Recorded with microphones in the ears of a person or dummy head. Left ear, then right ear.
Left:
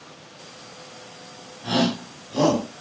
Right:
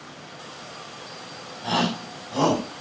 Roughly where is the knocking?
I don't hear knocking.